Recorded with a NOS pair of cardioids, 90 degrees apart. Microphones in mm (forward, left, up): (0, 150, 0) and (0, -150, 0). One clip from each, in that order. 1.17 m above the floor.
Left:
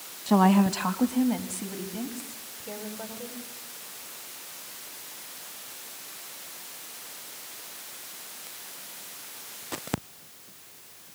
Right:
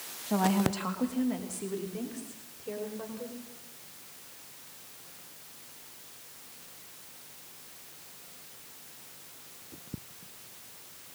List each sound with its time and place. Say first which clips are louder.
0.3 s a woman speaking: left 6 dB; 55° left, 1.3 m; by 3.4 s 20° left, 5 m